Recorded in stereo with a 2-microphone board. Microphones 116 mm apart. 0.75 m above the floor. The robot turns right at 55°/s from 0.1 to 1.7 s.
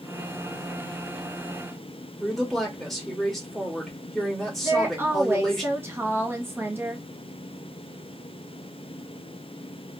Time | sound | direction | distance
2.2 | a woman speaking | 5° left (ahead or behind) | 1.7 m
4.6 | a woman speaking | 20° right (ahead or behind) | 0.8 m